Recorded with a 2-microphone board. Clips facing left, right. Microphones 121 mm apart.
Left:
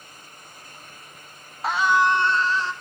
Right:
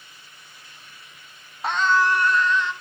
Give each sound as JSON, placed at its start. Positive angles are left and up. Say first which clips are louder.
{"t": 1.6, "sound": "a scream", "louder": "left 1 dB", "side_deg": 0, "distance_m": 1.1}